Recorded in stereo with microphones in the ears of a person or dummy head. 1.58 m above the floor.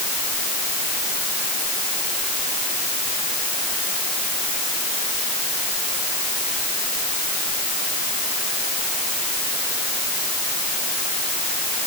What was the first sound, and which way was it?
Only background noise.